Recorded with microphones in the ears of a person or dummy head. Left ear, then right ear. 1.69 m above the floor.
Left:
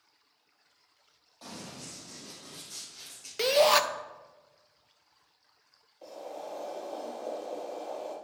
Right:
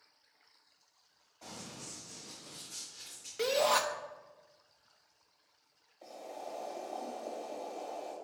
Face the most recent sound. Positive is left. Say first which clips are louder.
# left 4 dB
turn(degrees=5)  # may be behind; listen again after turning